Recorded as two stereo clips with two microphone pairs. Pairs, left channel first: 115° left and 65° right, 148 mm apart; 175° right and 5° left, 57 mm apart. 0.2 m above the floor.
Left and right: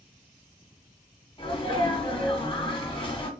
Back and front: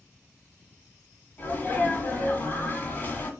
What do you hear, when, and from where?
1.4 s a sneeze: 145° left, 1.5 m